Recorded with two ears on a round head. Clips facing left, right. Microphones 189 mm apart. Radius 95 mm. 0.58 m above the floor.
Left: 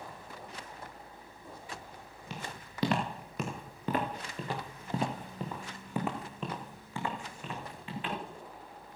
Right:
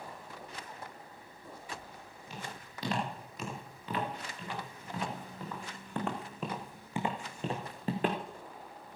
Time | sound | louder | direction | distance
2.3 | footsteps | left 2 dB | 55° left (ahead or behind) | 3.5 m